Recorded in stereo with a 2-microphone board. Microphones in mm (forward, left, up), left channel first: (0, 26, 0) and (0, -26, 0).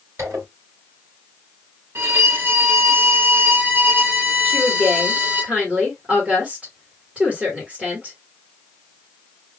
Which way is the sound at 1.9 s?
50° right (ahead or behind).